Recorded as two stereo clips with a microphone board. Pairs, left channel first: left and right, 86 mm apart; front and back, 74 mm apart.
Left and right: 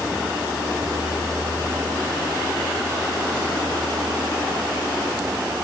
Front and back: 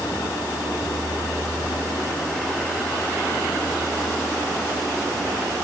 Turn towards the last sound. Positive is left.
turn(degrees=-60)